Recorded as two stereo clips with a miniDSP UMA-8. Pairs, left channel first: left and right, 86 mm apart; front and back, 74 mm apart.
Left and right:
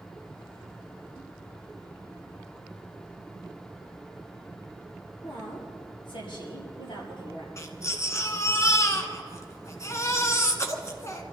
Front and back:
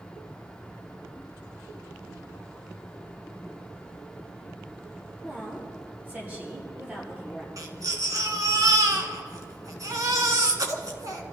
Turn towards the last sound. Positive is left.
turn(degrees=145)